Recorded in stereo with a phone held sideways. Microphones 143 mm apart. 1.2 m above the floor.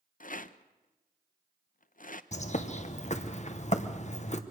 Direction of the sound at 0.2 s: 65° left (ahead or behind).